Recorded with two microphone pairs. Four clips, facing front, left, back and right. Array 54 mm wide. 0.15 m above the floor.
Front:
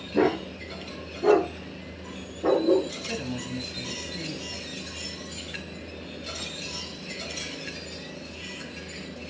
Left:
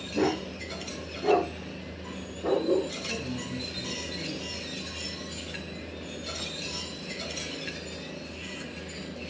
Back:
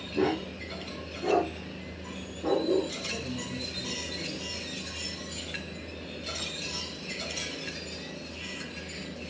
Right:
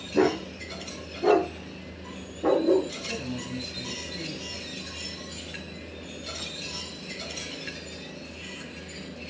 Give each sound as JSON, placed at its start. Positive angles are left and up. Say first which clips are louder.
{"t": 0.1, "sound": "a dog barking", "louder": "right 4 dB, front 5 dB", "azimuth_deg": -55, "distance_m": 4.5}
{"t": 3.0, "sound": "a man speaking", "louder": "even, front 3 dB", "azimuth_deg": -20, "distance_m": 3.5}